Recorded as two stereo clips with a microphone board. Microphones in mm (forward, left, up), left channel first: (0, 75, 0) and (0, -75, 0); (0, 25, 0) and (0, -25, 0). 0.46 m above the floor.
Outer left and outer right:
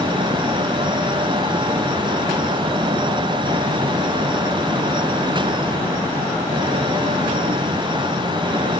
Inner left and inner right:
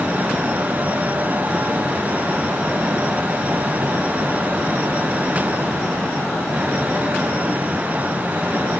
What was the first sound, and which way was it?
Only background noise.